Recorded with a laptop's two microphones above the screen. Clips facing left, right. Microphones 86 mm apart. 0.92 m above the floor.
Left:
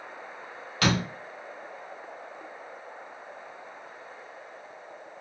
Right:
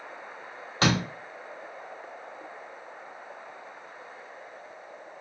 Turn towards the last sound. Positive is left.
turn(degrees=-30)  # may be behind; listen again after turning